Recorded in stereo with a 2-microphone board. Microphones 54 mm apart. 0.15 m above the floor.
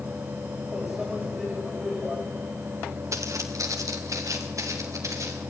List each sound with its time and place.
0.7 s a microwave: 10° right (ahead or behind), 9.5 m
3.1 s footsteps: 70° right (ahead or behind), 3 m; by 5.4 s 75° right (ahead or behind), 5.5 m